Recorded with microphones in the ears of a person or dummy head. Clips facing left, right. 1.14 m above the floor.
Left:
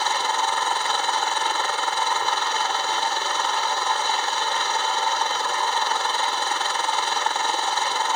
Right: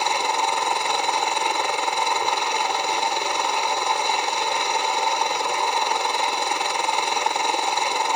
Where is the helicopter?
10° right (ahead or behind).